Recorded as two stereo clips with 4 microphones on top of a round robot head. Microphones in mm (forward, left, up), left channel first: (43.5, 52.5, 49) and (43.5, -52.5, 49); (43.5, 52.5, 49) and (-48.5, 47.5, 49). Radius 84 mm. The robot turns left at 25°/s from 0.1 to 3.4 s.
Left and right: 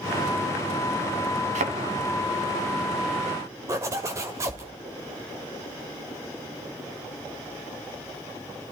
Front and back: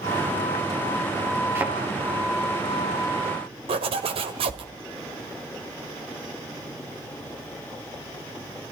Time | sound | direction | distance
1.6 | a thud | 105° right | 2.5 m
3.7 | a zipper | 155° right | 2.0 m